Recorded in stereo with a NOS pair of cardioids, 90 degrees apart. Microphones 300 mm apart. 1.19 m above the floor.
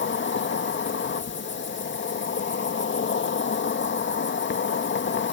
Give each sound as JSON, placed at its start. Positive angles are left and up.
{"t": 0.0, "sound": "an insect", "azimuth_deg": 40}